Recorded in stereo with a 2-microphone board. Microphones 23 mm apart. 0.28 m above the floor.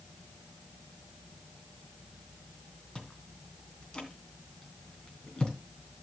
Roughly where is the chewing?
Left.